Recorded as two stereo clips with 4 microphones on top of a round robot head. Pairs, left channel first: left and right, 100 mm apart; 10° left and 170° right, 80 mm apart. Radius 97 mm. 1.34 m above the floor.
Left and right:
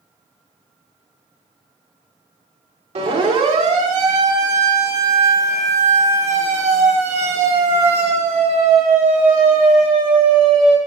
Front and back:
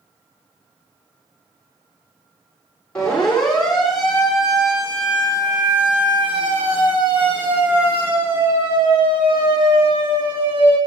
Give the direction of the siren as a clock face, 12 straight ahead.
2 o'clock.